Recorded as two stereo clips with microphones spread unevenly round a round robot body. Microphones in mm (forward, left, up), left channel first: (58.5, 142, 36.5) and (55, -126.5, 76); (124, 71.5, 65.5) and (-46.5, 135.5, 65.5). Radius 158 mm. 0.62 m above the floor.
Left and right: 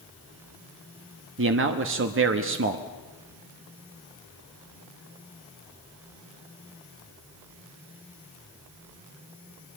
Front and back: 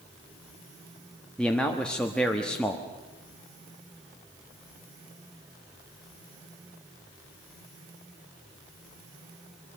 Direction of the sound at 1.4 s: 105° right.